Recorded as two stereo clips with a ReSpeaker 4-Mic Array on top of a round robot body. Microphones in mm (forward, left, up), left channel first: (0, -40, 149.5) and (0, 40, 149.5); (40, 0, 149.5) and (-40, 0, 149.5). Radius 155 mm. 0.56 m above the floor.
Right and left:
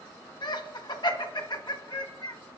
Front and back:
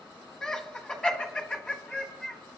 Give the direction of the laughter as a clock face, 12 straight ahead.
3 o'clock.